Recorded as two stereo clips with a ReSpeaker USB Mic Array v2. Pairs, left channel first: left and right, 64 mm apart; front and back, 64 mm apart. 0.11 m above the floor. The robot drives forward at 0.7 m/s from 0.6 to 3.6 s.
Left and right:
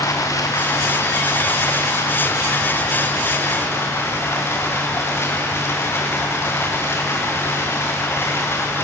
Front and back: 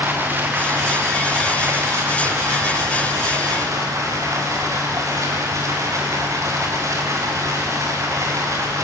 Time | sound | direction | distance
0.0 | running water | 120° left | 4.5 m